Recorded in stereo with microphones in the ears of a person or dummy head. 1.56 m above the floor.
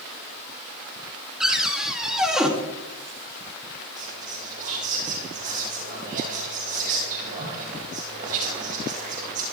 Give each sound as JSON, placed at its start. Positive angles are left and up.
{"t": 1.4, "sound": "a cupboard door", "side_deg": 0, "distance_m": 2.5}
{"t": 4.0, "sound": "whispering", "side_deg": -45, "distance_m": 2.5}